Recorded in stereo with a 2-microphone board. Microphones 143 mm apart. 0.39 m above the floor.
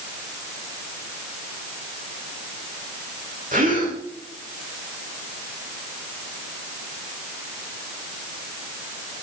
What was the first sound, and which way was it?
A gasp, 75° right (ahead or behind).